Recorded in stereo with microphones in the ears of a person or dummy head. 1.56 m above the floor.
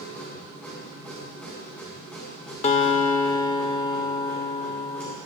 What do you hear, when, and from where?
0.0 s a machine running: 10° left (ahead or behind), 4 m
2.6 s a guitar: 40° left (ahead or behind), 0.8 m